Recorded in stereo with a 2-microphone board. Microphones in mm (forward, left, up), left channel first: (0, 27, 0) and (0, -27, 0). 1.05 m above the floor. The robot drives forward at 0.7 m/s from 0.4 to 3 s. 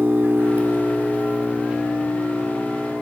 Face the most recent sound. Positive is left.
turn(degrees=-15)  # may be behind; listen again after turning